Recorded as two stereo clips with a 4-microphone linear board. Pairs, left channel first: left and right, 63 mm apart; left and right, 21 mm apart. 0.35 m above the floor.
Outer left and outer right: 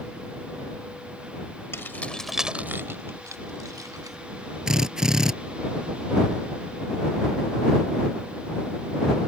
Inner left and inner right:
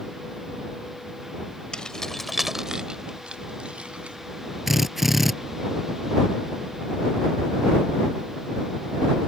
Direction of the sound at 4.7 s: 10° right (ahead or behind).